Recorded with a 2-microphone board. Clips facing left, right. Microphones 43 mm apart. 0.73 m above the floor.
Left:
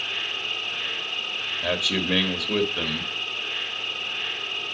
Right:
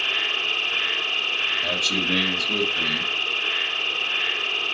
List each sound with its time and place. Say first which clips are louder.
0.0 s an insect: right 5 dB; 75° right (ahead or behind), 1.2 m
1.6 s a man speaking: right 2 dB; 25° left (ahead or behind), 1.4 m